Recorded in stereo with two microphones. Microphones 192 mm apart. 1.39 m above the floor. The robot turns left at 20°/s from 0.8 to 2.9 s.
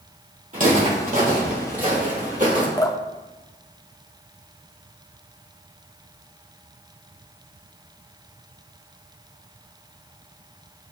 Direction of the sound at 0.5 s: 45° right (ahead or behind).